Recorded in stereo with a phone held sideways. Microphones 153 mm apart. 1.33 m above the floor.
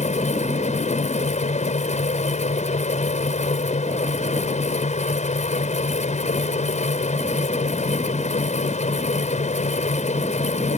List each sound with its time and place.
0.0 s a fan: 50° left (ahead or behind)